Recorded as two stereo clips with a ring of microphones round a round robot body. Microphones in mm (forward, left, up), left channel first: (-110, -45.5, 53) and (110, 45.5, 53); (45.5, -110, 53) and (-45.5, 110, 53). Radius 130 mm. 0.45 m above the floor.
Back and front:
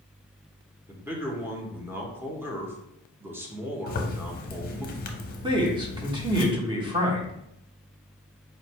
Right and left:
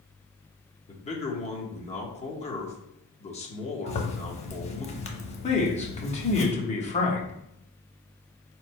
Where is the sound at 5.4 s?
35° right, 1.0 m.